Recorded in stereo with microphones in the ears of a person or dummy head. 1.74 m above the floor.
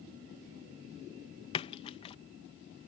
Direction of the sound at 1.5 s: 20° left (ahead or behind).